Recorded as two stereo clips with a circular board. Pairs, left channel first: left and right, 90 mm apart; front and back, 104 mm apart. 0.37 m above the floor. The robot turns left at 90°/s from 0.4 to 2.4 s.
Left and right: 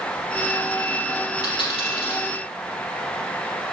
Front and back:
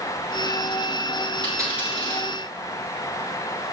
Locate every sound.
1.4 s a dropped coin: 135° left, 3.5 m; by 2.3 s 60° left, 3.5 m